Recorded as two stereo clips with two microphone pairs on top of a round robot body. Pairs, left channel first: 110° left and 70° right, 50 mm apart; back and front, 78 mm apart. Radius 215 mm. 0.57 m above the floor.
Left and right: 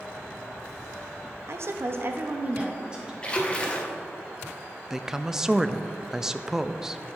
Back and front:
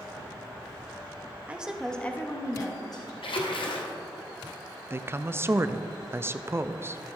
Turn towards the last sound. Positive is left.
turn(degrees=15)